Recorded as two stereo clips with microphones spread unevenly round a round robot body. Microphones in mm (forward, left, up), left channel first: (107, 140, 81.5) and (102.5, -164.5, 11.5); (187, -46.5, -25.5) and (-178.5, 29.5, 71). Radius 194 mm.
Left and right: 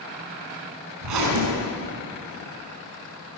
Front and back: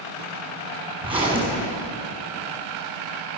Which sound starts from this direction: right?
A zipper, at 1.0 s.